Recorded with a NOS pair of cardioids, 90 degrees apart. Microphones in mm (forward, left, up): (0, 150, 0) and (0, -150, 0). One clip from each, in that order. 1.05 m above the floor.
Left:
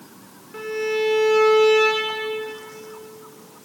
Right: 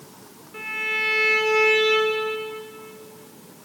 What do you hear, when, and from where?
0.5 s a violin: 35° left, 2 m